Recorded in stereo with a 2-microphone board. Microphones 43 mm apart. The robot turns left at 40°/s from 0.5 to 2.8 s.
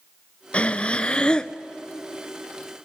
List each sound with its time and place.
0.5 s breathing: 30° left (ahead or behind), 0.6 m; by 1.5 s 20° left (ahead or behind), 0.6 m